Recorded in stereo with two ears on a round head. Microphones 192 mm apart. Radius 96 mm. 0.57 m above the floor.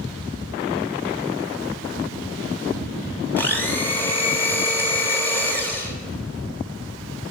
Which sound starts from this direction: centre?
A blender, at 3.4 s.